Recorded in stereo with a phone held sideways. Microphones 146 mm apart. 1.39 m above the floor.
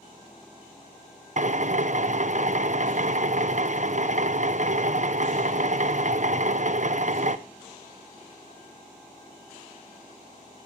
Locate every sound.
1.4 s a drill: 55° right (ahead or behind), 1.1 m